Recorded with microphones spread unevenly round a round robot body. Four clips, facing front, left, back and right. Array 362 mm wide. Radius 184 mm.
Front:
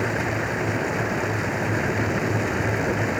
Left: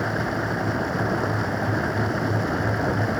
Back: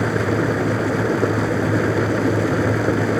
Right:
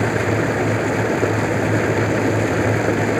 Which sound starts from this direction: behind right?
Running water, at 0.0 s.